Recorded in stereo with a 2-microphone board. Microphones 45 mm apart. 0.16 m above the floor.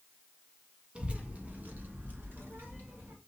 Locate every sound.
0.9 s a child speaking: 25° right (ahead or behind), 0.9 m; by 3.1 s 55° right (ahead or behind), 1.9 m